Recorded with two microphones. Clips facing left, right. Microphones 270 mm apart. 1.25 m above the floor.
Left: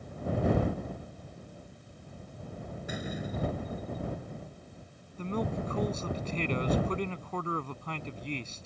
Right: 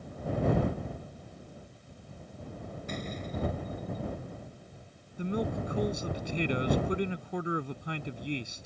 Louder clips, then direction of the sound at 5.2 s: Right 1 dB; 10° right (ahead or behind).